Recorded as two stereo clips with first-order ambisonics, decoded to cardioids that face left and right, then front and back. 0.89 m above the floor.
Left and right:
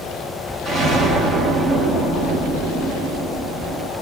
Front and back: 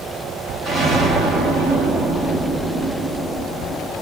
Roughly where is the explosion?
Behind right.